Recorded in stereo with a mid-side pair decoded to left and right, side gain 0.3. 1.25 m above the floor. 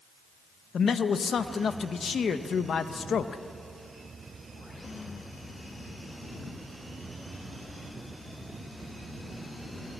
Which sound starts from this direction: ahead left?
A man speaking, at 0.7 s.